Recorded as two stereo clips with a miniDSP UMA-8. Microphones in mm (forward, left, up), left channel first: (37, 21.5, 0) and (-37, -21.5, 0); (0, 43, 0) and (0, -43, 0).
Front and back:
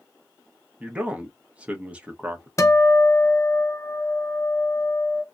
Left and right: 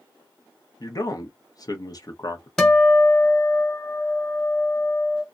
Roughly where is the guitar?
Ahead.